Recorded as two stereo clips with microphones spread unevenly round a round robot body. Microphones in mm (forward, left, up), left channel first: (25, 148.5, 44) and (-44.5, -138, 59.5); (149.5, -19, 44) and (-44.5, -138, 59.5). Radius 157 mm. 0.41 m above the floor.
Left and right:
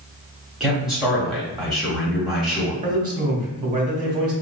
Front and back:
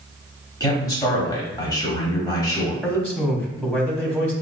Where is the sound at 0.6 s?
10° right, 1.1 m.